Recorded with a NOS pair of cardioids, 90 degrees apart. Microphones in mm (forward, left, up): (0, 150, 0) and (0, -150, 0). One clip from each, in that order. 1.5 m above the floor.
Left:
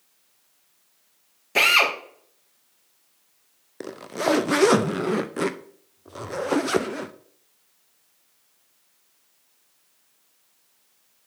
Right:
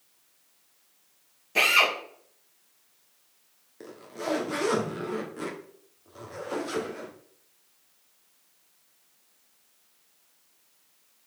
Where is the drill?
40° left, 2.5 m.